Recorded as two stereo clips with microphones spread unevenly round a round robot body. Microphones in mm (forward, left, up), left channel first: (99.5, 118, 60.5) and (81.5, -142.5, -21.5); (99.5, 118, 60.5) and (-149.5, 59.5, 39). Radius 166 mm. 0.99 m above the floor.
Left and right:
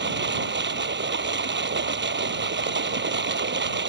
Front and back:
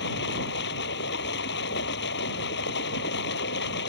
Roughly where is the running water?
Ahead right.